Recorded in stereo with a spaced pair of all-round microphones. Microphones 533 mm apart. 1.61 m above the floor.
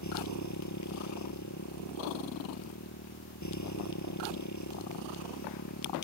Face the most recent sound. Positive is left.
turn(degrees=35)  # may be behind; listen again after turning